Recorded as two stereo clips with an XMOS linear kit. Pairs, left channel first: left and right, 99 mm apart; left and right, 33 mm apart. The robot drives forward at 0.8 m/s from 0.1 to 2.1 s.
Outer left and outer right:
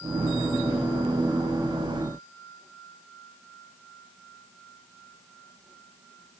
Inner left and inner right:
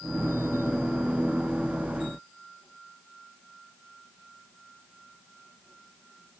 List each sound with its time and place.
Only background noise.